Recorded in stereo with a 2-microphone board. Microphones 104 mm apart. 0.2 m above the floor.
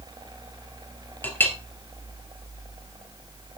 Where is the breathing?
No breathing in this recording.